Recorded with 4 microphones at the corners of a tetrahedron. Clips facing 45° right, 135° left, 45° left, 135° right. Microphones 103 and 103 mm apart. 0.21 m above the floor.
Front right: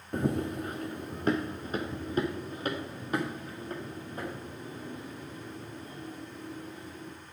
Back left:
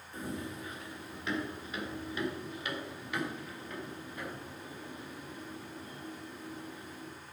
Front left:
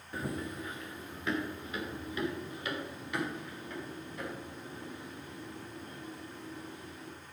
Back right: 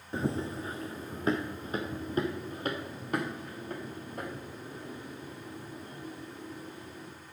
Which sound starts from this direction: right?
Running footsteps, at 0.1 s.